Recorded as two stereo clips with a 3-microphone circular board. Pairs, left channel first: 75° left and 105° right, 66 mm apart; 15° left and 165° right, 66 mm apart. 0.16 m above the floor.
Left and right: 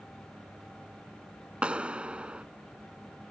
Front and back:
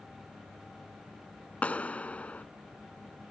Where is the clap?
40° right.